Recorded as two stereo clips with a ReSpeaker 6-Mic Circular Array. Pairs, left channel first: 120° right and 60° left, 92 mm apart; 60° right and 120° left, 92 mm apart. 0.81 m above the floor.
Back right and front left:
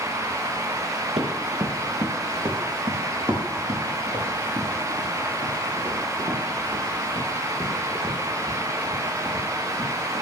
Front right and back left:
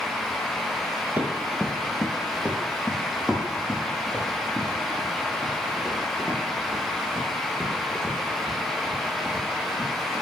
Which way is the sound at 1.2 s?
50° left.